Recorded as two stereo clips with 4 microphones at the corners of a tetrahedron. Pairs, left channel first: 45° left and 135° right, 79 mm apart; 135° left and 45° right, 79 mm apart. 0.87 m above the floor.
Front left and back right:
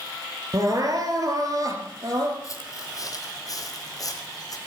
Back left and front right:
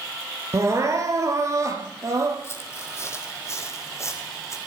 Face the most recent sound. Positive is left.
turn(degrees=85)